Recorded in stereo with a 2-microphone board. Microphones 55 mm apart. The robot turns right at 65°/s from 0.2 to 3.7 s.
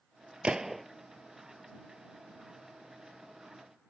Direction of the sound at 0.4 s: 20° right (ahead or behind).